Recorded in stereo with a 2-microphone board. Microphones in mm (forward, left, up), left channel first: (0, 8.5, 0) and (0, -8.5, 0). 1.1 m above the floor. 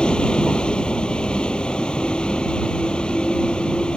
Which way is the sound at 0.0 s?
75° left (ahead or behind).